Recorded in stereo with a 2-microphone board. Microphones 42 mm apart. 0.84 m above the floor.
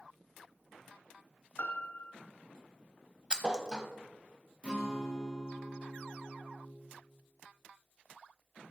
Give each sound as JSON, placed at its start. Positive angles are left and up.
{"t": 1.6, "sound": "a piano", "side_deg": 50, "distance_m": 0.7}
{"t": 3.3, "sound": "a thud", "side_deg": -20, "distance_m": 0.8}
{"t": 4.6, "sound": "a guitar", "side_deg": -25, "distance_m": 1.9}